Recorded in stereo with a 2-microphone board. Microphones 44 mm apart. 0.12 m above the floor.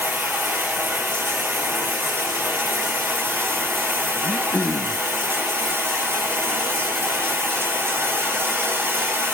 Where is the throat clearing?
25° left (ahead or behind), 0.9 m.